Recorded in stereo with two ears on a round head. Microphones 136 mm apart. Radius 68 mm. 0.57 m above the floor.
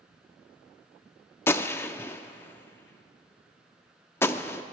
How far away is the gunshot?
About 0.7 m.